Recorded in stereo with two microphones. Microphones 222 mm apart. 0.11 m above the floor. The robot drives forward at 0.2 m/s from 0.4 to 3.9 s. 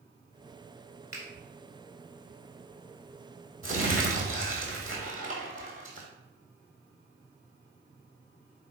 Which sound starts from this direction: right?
Crumpling, at 3.6 s.